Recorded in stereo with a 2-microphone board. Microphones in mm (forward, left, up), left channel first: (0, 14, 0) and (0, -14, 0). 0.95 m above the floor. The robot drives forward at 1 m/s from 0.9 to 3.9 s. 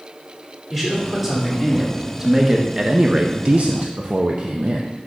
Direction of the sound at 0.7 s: 10° right (ahead or behind).